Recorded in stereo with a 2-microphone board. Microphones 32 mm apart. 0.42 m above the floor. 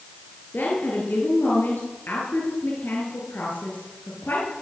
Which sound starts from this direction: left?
A woman speaking, at 0.5 s.